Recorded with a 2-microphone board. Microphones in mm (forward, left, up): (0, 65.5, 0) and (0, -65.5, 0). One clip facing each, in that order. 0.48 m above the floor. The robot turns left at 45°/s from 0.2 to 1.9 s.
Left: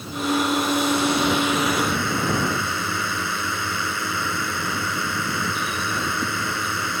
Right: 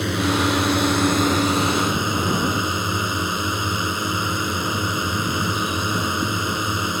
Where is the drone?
85° right; by 7.0 s 165° right.